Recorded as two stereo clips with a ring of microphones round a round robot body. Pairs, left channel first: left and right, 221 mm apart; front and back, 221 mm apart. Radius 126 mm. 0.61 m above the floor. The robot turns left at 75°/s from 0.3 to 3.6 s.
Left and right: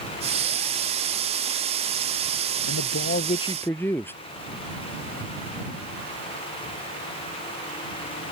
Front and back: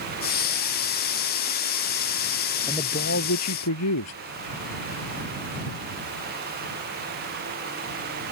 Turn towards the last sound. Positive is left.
turn(degrees=10)